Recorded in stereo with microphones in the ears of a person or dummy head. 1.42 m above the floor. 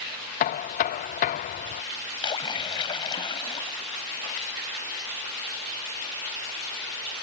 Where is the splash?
25° left (ahead or behind).